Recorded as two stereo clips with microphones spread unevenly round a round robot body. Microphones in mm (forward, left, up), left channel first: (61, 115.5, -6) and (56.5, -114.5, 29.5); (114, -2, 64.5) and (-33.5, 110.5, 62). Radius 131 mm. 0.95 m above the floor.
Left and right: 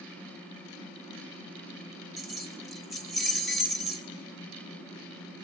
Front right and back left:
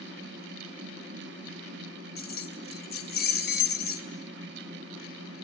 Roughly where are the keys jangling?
Ahead.